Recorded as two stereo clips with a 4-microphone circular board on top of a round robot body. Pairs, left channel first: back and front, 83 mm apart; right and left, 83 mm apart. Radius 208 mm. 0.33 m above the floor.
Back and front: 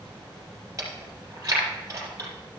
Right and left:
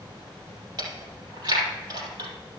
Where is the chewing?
55° left, 4 m.